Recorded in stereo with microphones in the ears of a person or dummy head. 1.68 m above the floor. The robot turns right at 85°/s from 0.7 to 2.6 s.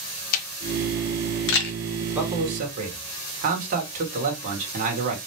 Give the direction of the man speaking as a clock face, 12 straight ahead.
6 o'clock.